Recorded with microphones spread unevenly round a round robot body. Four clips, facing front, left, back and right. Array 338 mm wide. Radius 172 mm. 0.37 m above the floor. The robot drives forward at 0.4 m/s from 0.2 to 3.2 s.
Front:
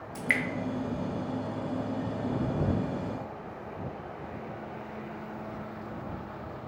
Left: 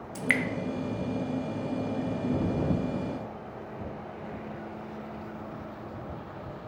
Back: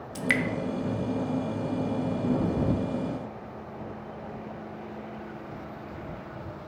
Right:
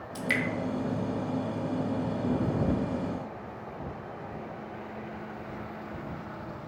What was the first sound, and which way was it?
Dripping, 130° left.